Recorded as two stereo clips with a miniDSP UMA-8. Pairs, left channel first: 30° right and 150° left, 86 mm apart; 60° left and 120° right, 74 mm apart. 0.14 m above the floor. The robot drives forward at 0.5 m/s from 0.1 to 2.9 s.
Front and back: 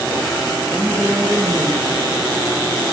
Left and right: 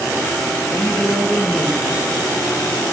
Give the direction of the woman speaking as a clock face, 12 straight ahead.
9 o'clock.